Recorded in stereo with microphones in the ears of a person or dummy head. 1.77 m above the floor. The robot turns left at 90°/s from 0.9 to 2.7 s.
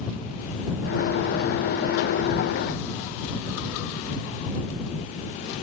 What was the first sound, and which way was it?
Only background noise.